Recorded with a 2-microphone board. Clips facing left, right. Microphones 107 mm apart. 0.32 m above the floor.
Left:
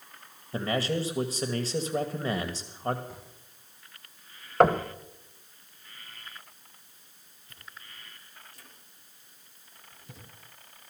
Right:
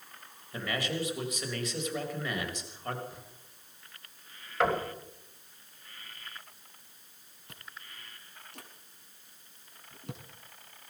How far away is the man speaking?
About 1.5 m.